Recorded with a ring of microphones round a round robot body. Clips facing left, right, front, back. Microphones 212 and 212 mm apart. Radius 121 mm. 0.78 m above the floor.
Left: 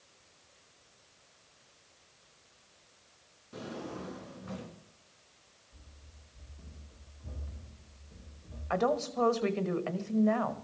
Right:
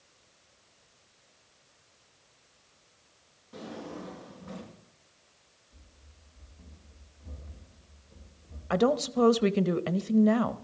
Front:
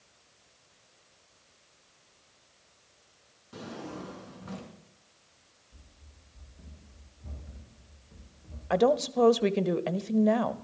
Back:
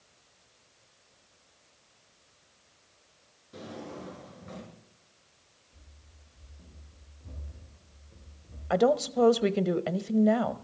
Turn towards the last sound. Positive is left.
turn(degrees=-95)